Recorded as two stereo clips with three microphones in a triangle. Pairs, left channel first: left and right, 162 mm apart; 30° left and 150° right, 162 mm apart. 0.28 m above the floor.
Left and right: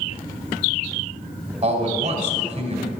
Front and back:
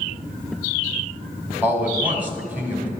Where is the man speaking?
75° right, 2 m.